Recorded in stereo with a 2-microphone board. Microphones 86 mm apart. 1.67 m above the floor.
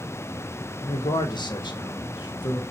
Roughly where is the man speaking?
Left.